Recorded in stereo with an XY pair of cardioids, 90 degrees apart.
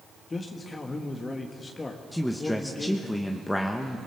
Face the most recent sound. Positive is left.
turn(degrees=10)